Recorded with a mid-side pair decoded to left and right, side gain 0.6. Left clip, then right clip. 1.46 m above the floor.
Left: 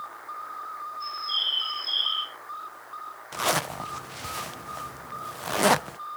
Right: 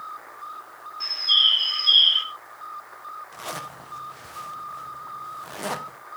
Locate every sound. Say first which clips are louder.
1.0 s a bird: right 10 dB; 65° right, 5.5 m
3.3 s a zipper: left 12 dB; 50° left, 0.9 m